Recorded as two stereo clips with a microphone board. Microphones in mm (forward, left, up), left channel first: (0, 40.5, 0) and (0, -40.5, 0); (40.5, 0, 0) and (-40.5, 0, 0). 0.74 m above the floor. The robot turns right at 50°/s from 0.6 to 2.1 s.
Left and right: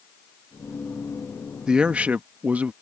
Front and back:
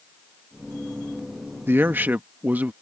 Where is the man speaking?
160° right; by 2.7 s 140° right.